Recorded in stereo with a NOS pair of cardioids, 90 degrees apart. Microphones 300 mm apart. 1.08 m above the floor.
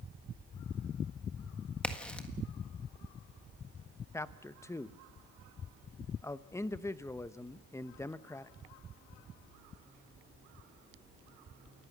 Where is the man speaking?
10° left, 0.7 m.